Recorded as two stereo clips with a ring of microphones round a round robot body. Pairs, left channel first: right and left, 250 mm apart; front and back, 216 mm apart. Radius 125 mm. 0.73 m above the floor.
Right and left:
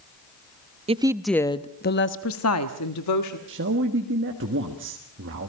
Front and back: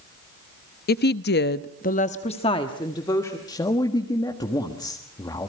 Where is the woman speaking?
30° left, 0.6 m; by 3.4 s 80° right, 1.4 m.